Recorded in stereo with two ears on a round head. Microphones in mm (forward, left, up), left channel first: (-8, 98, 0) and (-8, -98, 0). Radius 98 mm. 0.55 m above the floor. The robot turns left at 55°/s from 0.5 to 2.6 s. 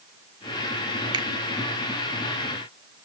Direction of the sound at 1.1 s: 20° right (ahead or behind).